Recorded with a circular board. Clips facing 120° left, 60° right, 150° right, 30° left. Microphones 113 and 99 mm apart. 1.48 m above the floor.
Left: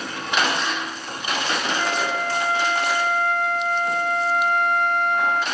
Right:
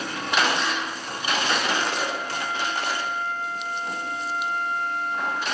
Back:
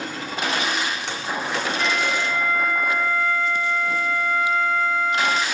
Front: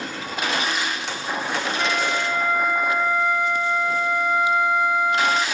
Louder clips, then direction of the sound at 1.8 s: Left 3 dB, front 1 dB; 105° left.